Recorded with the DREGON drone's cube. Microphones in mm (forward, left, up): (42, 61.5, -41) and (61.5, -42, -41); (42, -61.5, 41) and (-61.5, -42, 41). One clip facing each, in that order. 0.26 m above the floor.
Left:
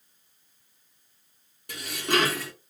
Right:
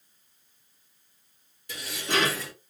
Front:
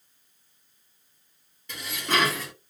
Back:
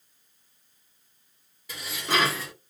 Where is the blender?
No blender in this recording.